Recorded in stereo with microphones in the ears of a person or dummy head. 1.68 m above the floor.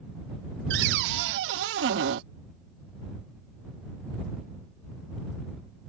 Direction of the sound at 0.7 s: 60° right (ahead or behind).